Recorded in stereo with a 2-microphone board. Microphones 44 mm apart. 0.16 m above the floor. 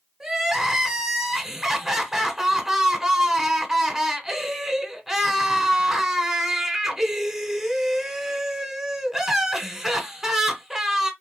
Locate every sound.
0.2 s crying: 10° right (ahead or behind), 0.8 m